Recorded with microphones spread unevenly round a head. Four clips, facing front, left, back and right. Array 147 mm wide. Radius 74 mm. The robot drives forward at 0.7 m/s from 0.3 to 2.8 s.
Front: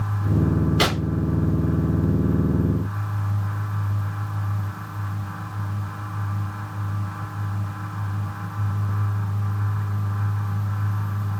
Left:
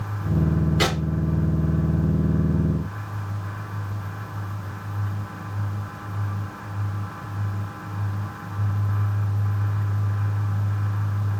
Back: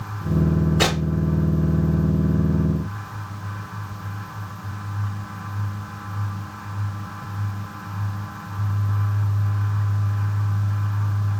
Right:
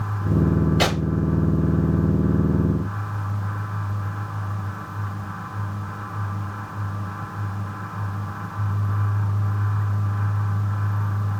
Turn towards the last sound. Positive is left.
turn(degrees=-30)